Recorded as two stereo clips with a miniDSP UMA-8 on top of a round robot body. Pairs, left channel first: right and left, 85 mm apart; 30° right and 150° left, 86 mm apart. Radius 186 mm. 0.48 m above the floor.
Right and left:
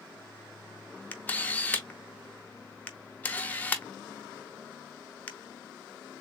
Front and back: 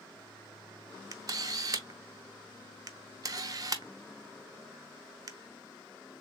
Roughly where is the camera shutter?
Behind.